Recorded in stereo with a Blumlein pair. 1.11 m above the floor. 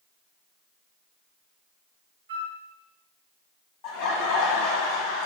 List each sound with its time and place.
2.3 s a flute: 60° right, 0.6 m
3.8 s laughter: 35° left, 1.2 m